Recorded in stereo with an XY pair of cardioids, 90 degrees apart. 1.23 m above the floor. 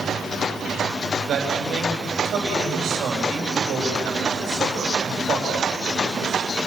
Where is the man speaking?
70° right, 7.5 m.